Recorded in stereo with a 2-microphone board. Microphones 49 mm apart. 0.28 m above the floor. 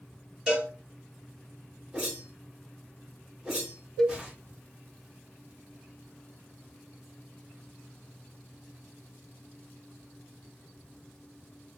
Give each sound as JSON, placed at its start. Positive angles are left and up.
{"t": 0.5, "sound": "a cowbell", "side_deg": -10, "distance_m": 3.0}
{"t": 1.9, "sound": "a whoosh", "side_deg": -15, "distance_m": 2.5}
{"t": 4.0, "sound": "a cowbell", "side_deg": 10, "distance_m": 0.7}